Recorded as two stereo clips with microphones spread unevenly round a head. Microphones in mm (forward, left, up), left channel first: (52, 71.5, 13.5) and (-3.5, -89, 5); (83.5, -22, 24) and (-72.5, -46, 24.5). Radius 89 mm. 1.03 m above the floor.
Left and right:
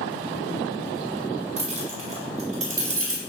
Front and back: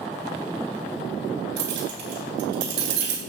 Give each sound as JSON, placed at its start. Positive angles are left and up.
{"t": 1.6, "sound": "keys jangling", "azimuth_deg": -165, "distance_m": 6.0}